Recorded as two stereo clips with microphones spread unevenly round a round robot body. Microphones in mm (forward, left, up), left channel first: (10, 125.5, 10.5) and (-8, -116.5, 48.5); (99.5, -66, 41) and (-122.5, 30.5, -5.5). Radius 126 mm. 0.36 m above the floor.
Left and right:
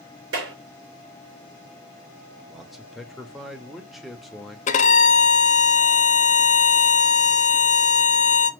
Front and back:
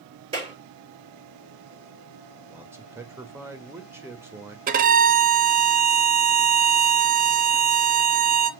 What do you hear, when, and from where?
0.3 s a clap: 135° right, 4.5 m
2.5 s a man speaking: 150° left, 0.9 m
4.7 s a violin: 125° left, 0.6 m